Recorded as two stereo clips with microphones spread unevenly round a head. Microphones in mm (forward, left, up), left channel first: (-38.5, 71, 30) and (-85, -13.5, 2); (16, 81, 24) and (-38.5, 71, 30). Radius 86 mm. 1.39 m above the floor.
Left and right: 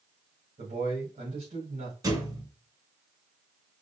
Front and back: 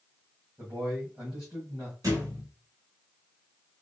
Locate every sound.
0.6 s a man speaking: 95° right, 1.7 m
2.0 s a thud: 175° right, 2.5 m